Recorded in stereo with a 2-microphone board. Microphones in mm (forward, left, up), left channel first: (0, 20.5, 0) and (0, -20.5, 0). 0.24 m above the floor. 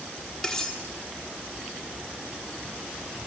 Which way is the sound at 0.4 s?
10° left (ahead or behind).